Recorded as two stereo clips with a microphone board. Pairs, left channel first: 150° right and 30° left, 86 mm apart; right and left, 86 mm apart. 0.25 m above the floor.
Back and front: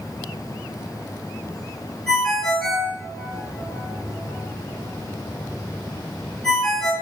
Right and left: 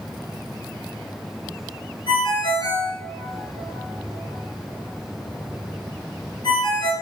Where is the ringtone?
70° right, 3 m.